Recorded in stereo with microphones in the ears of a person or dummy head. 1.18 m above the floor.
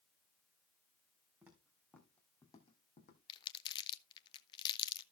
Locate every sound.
1.4 s footsteps: 10° right (ahead or behind), 3 m; by 3.2 s 40° left (ahead or behind), 2.5 m
3.3 s crumpling: 25° left (ahead or behind), 0.9 m